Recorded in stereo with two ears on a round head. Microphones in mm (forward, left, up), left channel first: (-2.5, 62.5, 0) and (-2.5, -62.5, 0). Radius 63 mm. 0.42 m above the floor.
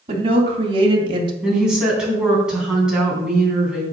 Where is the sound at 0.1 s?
45° right (ahead or behind), 3 m; by 1.3 s 35° right (ahead or behind), 1.6 m.